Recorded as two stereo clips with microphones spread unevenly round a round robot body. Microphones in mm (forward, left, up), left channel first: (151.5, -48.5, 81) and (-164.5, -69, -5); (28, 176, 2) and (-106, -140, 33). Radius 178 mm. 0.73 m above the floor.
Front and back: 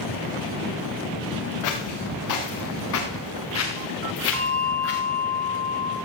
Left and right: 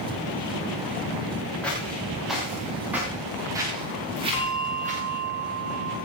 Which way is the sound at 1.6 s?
20° right.